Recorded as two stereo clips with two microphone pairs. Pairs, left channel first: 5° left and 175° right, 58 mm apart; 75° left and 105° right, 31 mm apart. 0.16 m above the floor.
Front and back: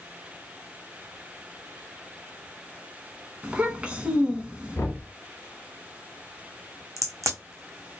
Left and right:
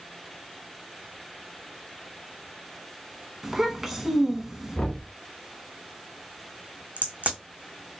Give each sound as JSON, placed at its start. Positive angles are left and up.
{"t": 3.4, "sound": "a child speaking", "azimuth_deg": -170, "distance_m": 0.6}
{"t": 4.8, "sound": "knocking", "azimuth_deg": 25, "distance_m": 1.4}
{"t": 7.0, "sound": "a crack", "azimuth_deg": -145, "distance_m": 1.4}